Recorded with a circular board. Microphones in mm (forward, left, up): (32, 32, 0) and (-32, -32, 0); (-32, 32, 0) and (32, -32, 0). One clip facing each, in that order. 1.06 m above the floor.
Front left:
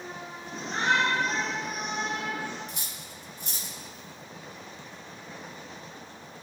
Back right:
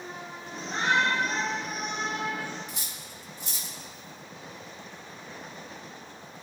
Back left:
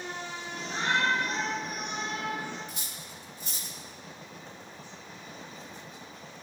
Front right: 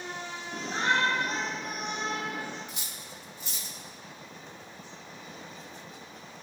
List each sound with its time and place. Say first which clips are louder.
0.5 s a shout: even, front right 2 dB; 15° right, 2.5 m
2.7 s cutlery clinking: even, even; 85° left, 1.4 m